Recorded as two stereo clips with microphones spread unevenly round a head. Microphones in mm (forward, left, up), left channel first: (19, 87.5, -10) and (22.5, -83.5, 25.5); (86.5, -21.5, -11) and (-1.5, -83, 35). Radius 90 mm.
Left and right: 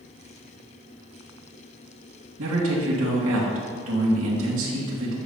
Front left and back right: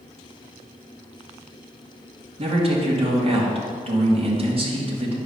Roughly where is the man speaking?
Right.